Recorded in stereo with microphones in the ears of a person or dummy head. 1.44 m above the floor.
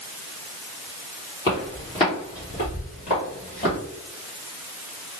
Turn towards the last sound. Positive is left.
turn(degrees=20)  # may be behind; listen again after turning